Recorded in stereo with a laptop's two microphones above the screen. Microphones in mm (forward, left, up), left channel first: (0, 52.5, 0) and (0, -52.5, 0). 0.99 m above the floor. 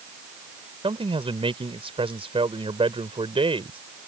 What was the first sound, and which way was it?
A man speaking, 70° right (ahead or behind).